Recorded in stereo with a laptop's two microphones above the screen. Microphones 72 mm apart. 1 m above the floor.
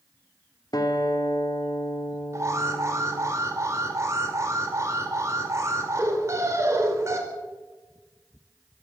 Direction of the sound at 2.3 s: 40° right (ahead or behind).